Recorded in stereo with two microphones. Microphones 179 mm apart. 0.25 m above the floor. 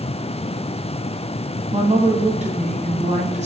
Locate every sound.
1.7 s a woman speaking: 40° right (ahead or behind), 2.5 m